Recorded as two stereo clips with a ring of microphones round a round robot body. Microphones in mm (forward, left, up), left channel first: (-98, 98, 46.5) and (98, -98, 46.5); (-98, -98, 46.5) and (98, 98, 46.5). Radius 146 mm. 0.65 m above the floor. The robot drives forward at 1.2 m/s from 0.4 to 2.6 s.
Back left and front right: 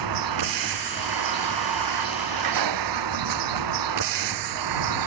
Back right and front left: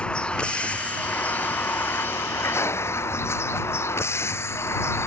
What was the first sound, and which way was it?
A vehicle, 50° right.